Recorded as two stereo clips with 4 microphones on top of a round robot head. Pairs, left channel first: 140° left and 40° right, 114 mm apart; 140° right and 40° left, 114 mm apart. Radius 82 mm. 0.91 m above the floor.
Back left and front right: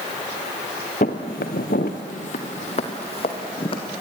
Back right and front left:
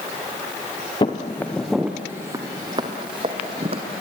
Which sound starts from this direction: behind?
Footsteps, at 1.0 s.